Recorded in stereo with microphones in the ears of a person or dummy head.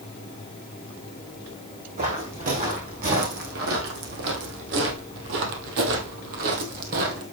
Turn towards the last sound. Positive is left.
turn(degrees=-50)  # may be behind; listen again after turning